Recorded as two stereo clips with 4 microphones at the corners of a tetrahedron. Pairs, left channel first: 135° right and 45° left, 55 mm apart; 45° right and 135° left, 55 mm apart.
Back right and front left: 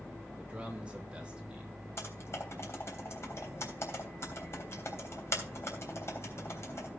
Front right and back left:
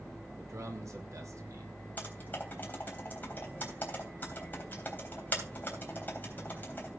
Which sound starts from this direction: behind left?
A man speaking, at 0.4 s.